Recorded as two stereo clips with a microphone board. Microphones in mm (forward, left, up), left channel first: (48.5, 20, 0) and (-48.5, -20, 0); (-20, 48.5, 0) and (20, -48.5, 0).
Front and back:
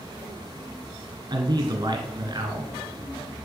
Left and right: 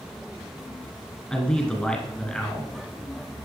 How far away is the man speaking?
About 1.7 m.